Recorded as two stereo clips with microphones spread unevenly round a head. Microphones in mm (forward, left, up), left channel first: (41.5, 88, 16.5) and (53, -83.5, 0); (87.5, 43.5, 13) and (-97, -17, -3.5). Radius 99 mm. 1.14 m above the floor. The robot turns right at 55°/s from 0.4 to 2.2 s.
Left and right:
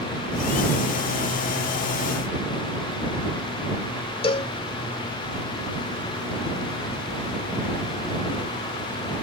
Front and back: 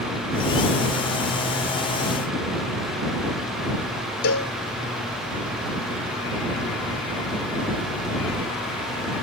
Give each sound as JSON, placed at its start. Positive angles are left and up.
{"t": 4.2, "sound": "a cowbell", "azimuth_deg": 35}